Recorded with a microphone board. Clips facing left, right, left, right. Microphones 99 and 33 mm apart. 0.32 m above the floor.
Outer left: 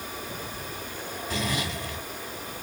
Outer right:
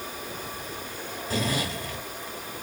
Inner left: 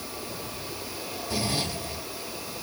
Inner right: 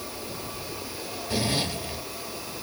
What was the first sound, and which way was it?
A zipper, 35° right (ahead or behind).